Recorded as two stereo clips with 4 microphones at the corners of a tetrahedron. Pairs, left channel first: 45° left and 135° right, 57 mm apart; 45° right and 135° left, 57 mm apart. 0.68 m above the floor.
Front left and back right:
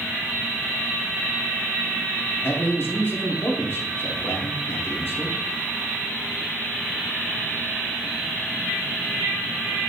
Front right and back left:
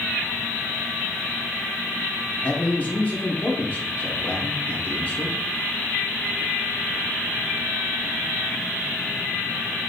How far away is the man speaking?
About 1.9 m.